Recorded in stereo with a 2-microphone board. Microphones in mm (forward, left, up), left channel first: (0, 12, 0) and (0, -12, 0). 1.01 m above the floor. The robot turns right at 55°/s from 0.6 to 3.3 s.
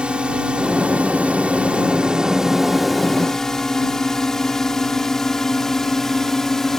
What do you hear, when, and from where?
0.0 s a drone: 50° right (ahead or behind); by 6.8 s 15° left (ahead or behind)